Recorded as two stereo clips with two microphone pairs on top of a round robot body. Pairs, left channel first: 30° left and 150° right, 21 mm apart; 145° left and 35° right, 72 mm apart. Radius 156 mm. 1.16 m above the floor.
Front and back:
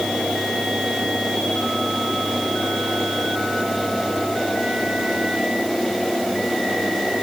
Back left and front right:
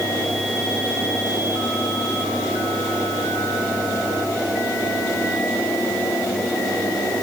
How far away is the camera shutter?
No camera shutter in this recording.